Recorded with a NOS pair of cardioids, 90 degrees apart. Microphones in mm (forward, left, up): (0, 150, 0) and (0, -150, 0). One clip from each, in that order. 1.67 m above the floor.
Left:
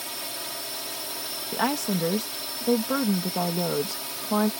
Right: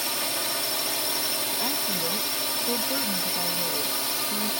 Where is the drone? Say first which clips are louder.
Right 6 dB; 45° right.